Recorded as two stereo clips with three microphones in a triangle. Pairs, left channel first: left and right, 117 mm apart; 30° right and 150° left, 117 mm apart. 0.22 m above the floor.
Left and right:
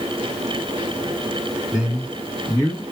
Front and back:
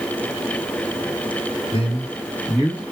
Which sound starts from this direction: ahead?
A man speaking, at 1.7 s.